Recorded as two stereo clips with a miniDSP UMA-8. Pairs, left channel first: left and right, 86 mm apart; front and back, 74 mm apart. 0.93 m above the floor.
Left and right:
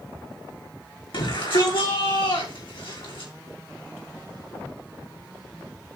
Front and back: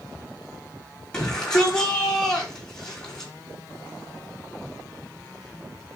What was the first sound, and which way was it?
A shout, 80° left.